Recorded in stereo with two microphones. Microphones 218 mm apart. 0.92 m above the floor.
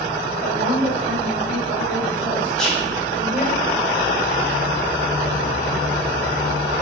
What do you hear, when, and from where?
0.4 s a woman speaking: 50° right (ahead or behind), 2.5 m
2.6 s whispering: centre (ahead or behind), 1.8 m